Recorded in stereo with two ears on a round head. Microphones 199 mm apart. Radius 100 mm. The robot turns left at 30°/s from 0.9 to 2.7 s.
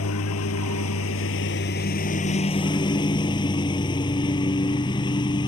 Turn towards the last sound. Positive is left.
turn(degrees=20)